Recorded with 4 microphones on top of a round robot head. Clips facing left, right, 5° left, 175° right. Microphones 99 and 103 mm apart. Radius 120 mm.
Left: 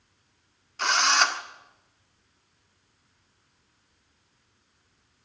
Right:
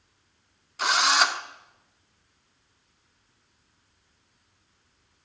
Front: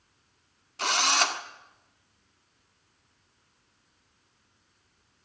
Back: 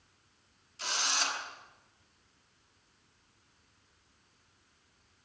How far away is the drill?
About 1.6 m.